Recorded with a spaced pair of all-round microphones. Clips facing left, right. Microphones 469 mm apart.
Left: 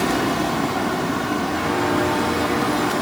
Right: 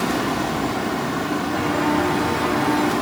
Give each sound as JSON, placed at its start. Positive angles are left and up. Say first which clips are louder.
{"t": 1.5, "sound": "footsteps", "louder": "right 1 dB", "side_deg": -65, "distance_m": 10.0}